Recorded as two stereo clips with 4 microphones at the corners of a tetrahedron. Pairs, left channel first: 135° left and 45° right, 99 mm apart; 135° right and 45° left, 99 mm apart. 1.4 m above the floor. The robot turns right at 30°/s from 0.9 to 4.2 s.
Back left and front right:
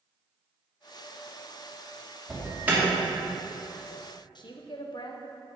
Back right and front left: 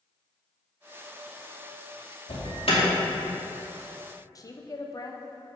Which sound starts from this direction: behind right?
An alarm, at 2.3 s.